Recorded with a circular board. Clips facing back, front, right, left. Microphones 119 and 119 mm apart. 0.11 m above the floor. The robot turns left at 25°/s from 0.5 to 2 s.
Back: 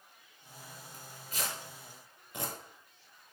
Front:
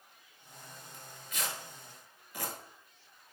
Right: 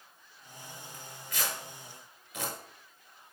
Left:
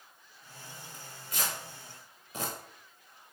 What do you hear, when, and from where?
0.9 s tearing paper: 150° left, 1.0 m; by 2.5 s 125° left, 1.0 m